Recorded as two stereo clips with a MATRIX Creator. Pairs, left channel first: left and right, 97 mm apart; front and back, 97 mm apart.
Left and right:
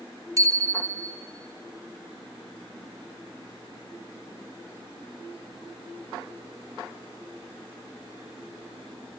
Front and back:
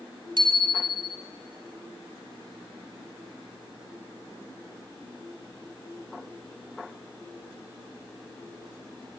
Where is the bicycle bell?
145° right, 3.5 m.